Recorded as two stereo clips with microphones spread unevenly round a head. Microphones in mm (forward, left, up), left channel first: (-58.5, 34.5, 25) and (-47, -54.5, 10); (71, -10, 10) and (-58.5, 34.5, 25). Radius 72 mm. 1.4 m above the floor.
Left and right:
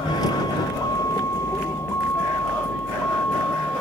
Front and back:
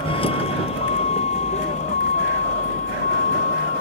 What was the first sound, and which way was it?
A vehicle, 35° left.